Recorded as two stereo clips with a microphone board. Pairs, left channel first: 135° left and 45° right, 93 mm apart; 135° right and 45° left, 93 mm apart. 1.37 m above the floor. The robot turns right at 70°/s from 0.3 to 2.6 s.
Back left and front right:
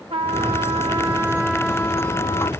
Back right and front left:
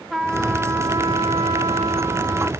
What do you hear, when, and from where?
0.1 s a trumpet: 45° right, 1.6 m; by 2.5 s 110° left, 1.6 m